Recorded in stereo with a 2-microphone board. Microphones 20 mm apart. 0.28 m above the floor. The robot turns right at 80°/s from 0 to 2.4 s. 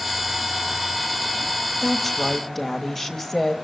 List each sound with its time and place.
1.8 s a woman speaking: 5° left (ahead or behind), 1.3 m; by 3.5 s 15° left (ahead or behind), 1.3 m